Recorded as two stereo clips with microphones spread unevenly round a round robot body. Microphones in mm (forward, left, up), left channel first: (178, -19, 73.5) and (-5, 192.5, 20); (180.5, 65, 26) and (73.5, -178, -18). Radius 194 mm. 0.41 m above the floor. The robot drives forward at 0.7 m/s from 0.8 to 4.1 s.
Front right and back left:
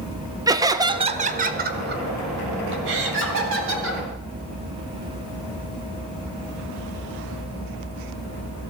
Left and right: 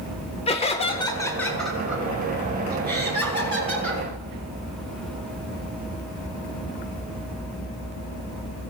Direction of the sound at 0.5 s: 130° left.